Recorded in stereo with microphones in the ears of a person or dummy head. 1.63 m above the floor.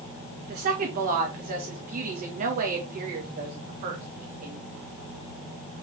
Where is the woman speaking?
45° right (ahead or behind), 2 m.